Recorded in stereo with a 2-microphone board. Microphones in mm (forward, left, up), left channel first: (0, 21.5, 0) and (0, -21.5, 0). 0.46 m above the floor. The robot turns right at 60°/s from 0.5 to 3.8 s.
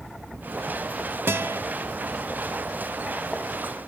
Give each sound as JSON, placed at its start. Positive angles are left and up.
{"t": 1.3, "sound": "a guitar", "side_deg": -65, "distance_m": 0.7}